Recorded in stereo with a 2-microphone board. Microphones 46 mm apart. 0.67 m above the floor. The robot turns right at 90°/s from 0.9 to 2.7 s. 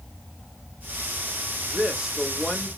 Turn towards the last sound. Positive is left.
turn(degrees=40)